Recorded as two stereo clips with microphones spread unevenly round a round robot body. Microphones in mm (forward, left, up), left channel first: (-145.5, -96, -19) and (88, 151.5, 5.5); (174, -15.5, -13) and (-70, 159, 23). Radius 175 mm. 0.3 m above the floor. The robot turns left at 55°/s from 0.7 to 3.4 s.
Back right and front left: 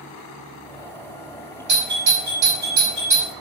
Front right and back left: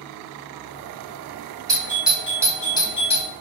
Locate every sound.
1.7 s a doorbell: 65° left, 1.7 m; by 3.3 s 20° right, 1.7 m